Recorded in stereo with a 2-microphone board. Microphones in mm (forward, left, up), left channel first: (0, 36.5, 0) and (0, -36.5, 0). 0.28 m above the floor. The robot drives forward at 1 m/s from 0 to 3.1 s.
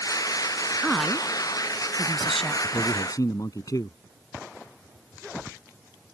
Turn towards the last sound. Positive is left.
turn(degrees=55)  # may be behind; listen again after turning